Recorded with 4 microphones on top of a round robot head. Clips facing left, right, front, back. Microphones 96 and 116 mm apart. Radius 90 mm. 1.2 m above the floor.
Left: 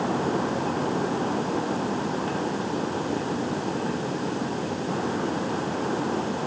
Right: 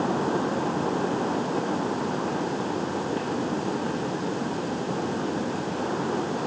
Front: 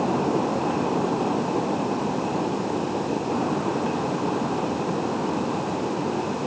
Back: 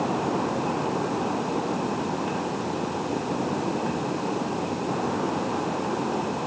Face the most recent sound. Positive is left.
No sound to turn to.